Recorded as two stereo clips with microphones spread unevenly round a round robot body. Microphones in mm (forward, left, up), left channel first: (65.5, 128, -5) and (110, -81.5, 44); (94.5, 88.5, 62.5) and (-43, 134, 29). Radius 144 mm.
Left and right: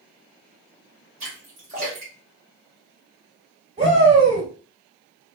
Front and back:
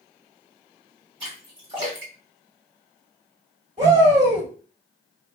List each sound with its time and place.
1.2 s a splash: 145° right, 1.7 m
3.8 s a shout: 150° right, 3 m